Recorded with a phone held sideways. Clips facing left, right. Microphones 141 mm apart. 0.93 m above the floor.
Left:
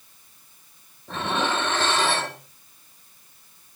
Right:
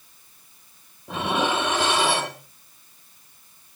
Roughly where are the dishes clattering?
Centre.